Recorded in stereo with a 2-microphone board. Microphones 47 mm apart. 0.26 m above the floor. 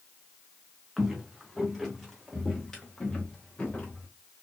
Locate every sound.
1.0 s footsteps: 5° right (ahead or behind), 3.5 m; by 4.1 s 35° left (ahead or behind), 3 m